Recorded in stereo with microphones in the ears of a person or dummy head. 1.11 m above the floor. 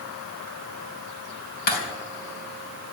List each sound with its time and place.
1.7 s breaking glass: 55° left (ahead or behind), 3.5 m